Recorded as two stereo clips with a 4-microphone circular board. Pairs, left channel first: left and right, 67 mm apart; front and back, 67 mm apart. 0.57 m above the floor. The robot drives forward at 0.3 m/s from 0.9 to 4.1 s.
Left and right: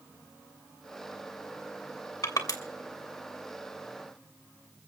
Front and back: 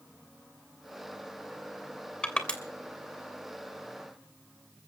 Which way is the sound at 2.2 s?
75° left.